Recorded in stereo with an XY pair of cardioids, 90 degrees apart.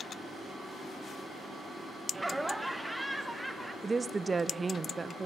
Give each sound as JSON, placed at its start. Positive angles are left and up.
{"t": 2.1, "sound": "laughter", "azimuth_deg": -10, "distance_m": 0.9}
{"t": 3.8, "sound": "a woman speaking", "azimuth_deg": -25, "distance_m": 0.6}